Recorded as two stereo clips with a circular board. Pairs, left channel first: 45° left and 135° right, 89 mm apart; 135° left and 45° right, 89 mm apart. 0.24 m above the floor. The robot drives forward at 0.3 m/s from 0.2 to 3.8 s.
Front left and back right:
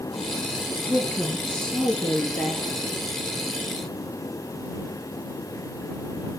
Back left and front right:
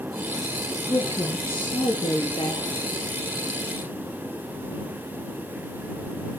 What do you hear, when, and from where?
0.9 s a woman speaking: 120° left, 3.5 m; by 2.8 s 130° left, 4 m